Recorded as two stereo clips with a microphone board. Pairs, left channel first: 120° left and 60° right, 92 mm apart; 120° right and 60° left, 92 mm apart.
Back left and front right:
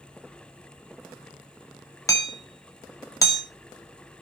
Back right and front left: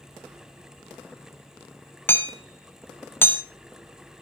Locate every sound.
2.1 s hammering: 175° left, 1.9 m